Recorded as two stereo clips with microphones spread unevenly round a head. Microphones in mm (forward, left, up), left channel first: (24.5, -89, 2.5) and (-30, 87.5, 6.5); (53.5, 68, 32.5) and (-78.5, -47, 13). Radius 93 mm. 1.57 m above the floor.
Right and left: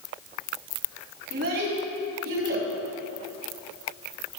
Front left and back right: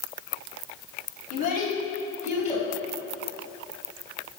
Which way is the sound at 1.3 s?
80° left.